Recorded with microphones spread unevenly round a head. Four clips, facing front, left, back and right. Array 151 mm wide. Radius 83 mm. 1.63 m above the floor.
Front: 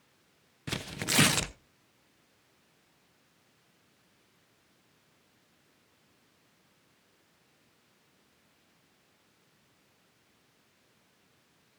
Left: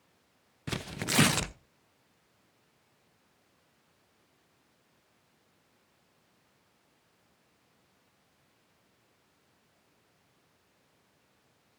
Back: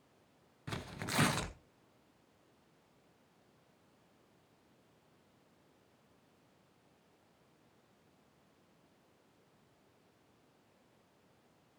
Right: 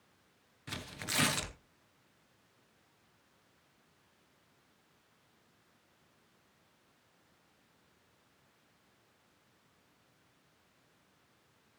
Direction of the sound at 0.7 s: 50° left.